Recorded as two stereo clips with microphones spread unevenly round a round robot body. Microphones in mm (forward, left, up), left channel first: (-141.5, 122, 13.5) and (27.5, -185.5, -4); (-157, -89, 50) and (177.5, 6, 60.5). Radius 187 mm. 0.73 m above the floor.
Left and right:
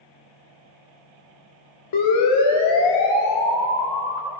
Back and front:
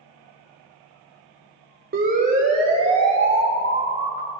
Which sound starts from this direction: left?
A siren, at 1.9 s.